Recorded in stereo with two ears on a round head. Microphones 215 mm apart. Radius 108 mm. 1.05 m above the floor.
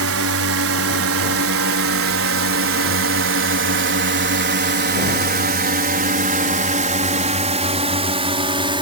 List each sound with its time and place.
0.0 s a drone: 60° right (ahead or behind); by 8.8 s 20° right (ahead or behind)